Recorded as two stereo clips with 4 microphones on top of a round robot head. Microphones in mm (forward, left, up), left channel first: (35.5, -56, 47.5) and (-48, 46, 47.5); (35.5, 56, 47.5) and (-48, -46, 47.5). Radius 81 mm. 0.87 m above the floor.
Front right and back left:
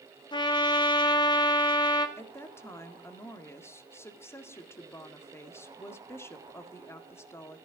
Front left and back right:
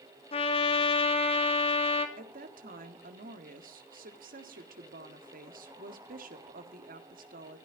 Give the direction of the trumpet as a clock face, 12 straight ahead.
12 o'clock.